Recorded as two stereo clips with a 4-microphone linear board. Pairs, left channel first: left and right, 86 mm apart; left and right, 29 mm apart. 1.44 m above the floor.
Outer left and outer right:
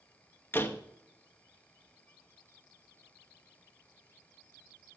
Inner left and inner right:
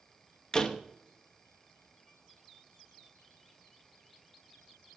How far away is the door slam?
About 0.9 m.